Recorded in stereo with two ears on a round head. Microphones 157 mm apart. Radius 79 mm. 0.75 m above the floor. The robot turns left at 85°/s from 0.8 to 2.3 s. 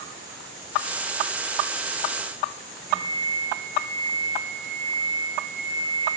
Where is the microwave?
55° left (ahead or behind), 3.5 m.